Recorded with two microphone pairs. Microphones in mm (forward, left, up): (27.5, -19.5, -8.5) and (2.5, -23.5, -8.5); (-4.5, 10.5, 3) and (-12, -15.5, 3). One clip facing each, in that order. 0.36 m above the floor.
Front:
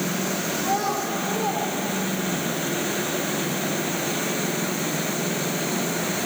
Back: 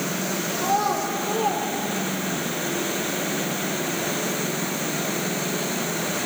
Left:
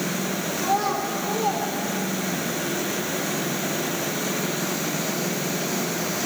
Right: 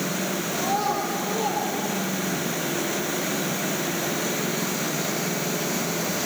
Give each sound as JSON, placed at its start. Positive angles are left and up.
{"t": 0.6, "sound": "a child speaking", "azimuth_deg": -165, "distance_m": 8.5}